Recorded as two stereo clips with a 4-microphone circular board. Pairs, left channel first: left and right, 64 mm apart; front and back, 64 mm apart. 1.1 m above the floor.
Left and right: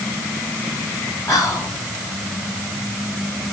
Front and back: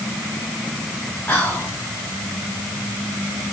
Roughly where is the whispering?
Ahead left.